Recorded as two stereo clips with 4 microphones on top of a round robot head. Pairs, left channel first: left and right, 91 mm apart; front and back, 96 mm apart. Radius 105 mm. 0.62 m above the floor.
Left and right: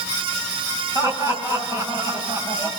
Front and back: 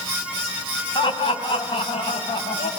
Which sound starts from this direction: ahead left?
Laughter, at 0.9 s.